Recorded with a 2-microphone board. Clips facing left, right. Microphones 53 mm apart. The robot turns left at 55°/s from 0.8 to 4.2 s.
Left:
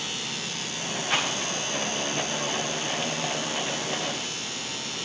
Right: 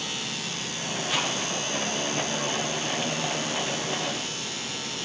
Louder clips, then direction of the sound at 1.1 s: Left 2 dB; 55° left (ahead or behind).